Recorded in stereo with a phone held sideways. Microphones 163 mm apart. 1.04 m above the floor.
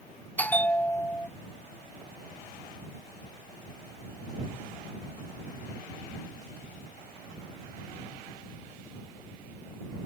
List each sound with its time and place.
0.4 s a bell: 10° left (ahead or behind)